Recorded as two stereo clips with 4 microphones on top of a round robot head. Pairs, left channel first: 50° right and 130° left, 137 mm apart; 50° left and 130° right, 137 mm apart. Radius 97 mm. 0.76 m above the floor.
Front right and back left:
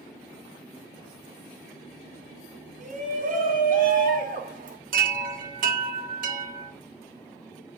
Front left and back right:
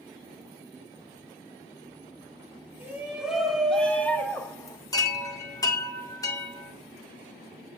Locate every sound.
2.8 s a shout: 155° left, 3 m; by 4.8 s 115° left, 3 m
4.9 s a chime: 115° left, 1.9 m